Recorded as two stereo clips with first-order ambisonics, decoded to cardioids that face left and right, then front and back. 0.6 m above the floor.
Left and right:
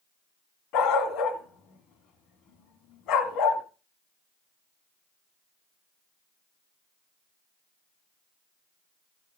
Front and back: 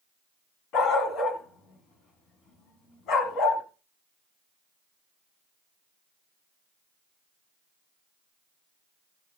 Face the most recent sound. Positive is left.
turn(degrees=45)